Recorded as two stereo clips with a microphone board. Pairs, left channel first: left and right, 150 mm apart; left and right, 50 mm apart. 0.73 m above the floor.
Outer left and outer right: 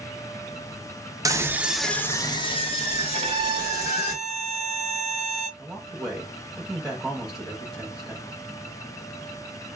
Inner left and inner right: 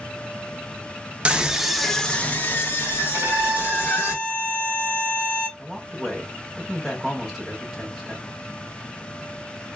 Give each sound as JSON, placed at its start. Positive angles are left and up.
{"t": 1.2, "sound": "a scream", "side_deg": -25, "distance_m": 0.6}
{"t": 3.1, "sound": "a violin", "side_deg": -40, "distance_m": 0.9}
{"t": 5.6, "sound": "a man speaking", "side_deg": -5, "distance_m": 0.9}